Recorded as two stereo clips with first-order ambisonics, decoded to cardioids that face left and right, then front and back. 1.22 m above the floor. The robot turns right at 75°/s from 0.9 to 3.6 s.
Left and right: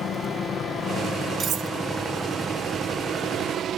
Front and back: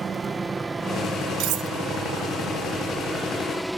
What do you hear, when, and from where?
0.0 s a helicopter: 125° left; by 3.8 s 95° right
1.4 s cutlery clinking: 155° right; by 1.7 s 135° right